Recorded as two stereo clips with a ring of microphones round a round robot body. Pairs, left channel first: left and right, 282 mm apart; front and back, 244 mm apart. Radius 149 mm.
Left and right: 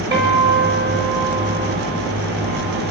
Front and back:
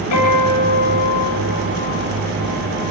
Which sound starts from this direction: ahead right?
A guitar, at 0.1 s.